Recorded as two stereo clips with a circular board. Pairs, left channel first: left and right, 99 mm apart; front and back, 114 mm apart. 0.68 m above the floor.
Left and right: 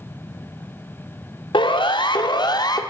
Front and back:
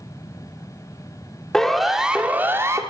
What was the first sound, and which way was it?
A siren, 85° left.